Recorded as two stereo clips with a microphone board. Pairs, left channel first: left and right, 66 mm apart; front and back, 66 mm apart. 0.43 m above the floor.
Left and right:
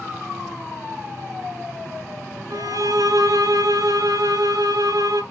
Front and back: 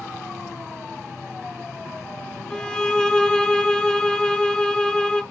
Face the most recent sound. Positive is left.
turn(degrees=-80)